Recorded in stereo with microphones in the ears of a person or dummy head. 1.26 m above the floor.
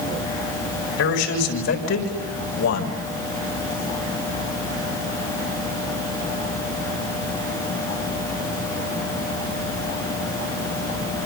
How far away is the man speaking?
About 5 m.